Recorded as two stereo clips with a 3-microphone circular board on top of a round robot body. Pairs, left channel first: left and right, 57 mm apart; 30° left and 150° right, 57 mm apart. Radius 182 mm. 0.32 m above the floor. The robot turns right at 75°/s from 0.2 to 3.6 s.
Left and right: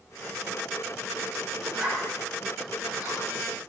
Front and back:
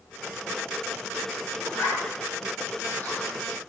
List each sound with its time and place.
1.6 s a zipper: 15° right, 8.5 m; by 3.3 s 105° left, 8.5 m